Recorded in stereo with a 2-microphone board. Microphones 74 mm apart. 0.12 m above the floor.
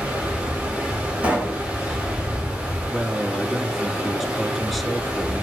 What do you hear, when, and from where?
0.0 s running water: 10° right (ahead or behind), 5.5 m
1.2 s a pop: 15° right (ahead or behind), 6 m
2.9 s a man speaking: centre (ahead or behind), 1.6 m